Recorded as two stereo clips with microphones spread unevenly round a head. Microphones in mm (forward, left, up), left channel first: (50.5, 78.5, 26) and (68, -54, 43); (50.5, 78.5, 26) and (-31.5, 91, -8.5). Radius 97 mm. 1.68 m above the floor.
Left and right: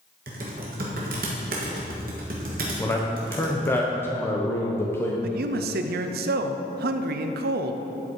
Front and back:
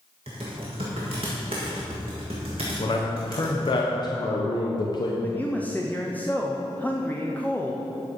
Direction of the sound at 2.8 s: 25° left.